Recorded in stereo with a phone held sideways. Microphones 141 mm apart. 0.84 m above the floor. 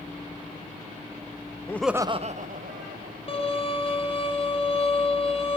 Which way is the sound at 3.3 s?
40° left (ahead or behind).